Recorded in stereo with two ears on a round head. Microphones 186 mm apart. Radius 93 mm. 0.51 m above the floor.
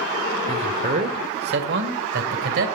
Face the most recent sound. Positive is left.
turn(degrees=-60)  # may be behind; listen again after turning